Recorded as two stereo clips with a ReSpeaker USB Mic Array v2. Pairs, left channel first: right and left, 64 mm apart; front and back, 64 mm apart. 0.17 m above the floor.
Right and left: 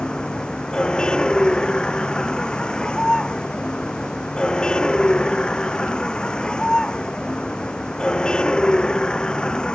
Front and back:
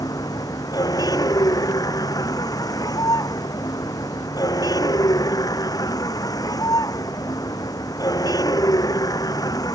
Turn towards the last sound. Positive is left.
turn(degrees=-10)